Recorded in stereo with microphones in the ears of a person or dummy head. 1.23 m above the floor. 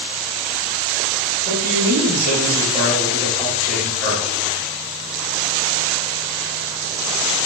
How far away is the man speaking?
About 1.2 m.